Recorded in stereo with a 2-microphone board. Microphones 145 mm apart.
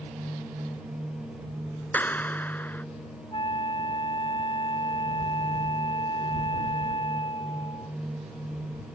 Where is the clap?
10° left (ahead or behind).